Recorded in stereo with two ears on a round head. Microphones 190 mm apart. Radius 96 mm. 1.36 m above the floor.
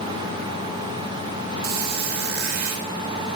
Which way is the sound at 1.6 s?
75° right (ahead or behind).